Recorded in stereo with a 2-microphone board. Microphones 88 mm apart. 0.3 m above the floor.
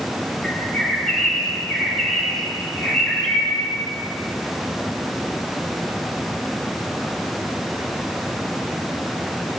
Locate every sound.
0.4 s a bird: 5° left (ahead or behind), 4 m